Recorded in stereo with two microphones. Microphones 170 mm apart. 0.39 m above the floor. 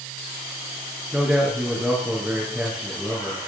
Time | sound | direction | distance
1.1 | a man speaking | 10° right (ahead or behind) | 5.5 m